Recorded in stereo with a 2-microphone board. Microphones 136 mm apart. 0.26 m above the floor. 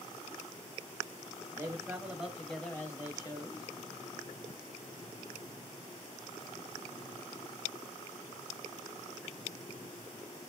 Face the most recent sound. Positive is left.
turn(degrees=40)  # may be behind; listen again after turning